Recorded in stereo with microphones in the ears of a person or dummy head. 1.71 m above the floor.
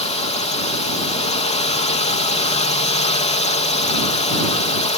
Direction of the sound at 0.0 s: 35° left (ahead or behind).